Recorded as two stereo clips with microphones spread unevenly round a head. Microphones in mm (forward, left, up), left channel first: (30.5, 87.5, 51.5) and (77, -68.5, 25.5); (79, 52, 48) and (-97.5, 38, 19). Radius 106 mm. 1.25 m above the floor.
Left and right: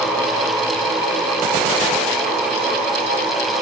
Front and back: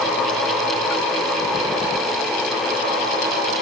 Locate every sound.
Only background noise.